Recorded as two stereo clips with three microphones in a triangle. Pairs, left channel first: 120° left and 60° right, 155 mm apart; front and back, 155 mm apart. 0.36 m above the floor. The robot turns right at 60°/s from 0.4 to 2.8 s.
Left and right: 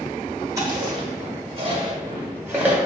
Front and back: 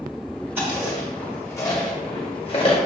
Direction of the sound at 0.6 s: 115° right.